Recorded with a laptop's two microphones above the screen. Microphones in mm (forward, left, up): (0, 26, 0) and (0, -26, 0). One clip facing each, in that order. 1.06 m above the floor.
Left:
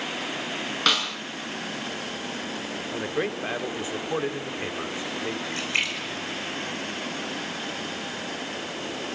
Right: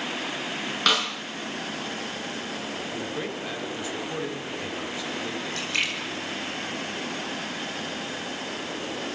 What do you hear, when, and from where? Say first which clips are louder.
0.9 s a snare drum: right 1 dB; centre (ahead or behind), 6 m
2.9 s a man speaking: left 7 dB; 30° left (ahead or behind), 2.5 m
5.5 s a splash: even; 25° left (ahead or behind), 6.5 m